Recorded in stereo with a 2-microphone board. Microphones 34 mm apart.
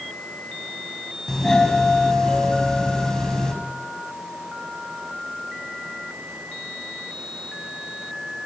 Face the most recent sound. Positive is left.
turn(degrees=15)  # may be behind; listen again after turning